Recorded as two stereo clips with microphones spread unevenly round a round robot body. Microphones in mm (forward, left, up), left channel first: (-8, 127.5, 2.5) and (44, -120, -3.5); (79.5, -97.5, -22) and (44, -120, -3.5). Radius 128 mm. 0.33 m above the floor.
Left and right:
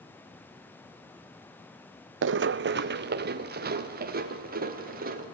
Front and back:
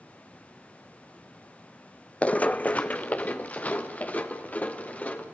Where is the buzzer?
No buzzer in this recording.